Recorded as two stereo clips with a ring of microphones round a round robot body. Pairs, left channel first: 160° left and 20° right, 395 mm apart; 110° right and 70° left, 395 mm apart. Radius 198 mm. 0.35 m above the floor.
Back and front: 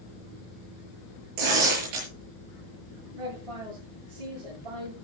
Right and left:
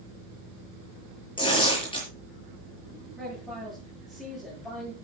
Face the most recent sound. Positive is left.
turn(degrees=-25)